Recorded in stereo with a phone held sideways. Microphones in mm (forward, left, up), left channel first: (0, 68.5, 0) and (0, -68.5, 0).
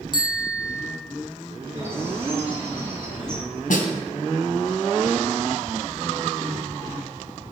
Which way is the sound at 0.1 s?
30° left (ahead or behind).